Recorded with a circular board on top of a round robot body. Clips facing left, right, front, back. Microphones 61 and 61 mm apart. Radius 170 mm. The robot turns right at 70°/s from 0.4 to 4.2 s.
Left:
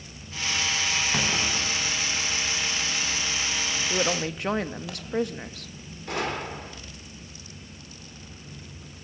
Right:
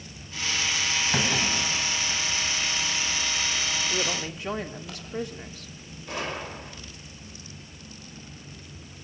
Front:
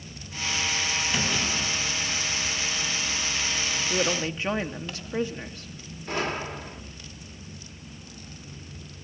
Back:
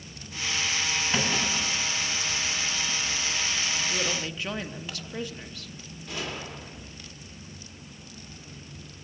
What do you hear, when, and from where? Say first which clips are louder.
1.1 s a clunk: right 1 dB, even; 120° right, 10 m; by 4.9 s 95° left, 10 m
3.9 s a woman speaking: left 3 dB, front 4 dB; 40° left, 1.8 m; by 5.7 s 65° left, 1.8 m
6.1 s a gunshot: left 3 dB, front 7 dB; 55° left, 2.5 m